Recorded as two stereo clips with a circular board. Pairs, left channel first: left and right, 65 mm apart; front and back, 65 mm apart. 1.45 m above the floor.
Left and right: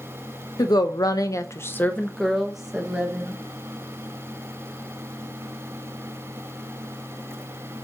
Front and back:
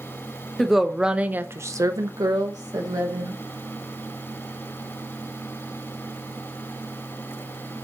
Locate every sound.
0.6 s a woman speaking: 90° left, 1.3 m; by 3.4 s 160° right, 1.8 m